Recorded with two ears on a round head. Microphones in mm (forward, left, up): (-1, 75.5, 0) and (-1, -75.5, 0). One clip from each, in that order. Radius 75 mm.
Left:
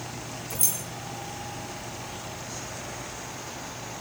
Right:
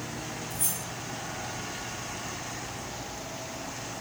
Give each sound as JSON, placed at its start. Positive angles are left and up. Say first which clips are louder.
{"t": 0.5, "sound": "keys jangling", "louder": "left 6 dB", "side_deg": 25, "distance_m": 3.0}